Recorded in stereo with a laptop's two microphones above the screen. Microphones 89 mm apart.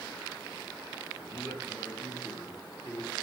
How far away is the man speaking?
About 1.0 m.